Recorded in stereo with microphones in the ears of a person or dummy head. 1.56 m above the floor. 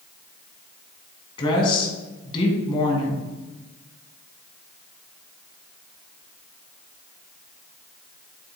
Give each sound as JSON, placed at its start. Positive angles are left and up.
{"t": 1.4, "sound": "a woman speaking", "side_deg": 30, "distance_m": 2.5}